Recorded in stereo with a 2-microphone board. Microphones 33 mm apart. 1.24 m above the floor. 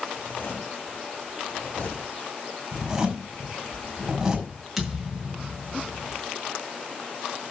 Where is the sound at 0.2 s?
65° left (ahead or behind), 3.5 m.